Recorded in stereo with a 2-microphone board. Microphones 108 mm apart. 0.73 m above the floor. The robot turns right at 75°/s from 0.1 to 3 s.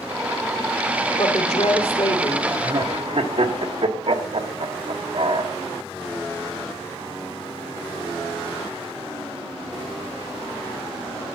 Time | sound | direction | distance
1.2 | a woman speaking | 55° left | 2 m
2.6 | laughter | 50° right (ahead or behind) | 1.5 m